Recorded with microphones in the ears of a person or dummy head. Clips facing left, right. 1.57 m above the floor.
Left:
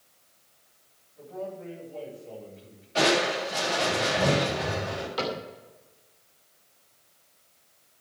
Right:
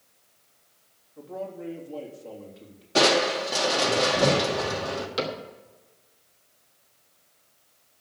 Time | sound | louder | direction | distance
1.2 | a man speaking | right 1 dB | 75° right (ahead or behind) | 3.5 m
3.0 | crushing | right 2 dB | 65° right (ahead or behind) | 2.5 m
5.2 | a cupboard door | even | 35° right (ahead or behind) | 2.5 m